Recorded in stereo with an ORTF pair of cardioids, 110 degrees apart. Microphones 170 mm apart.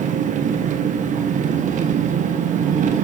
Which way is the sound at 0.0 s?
50° right.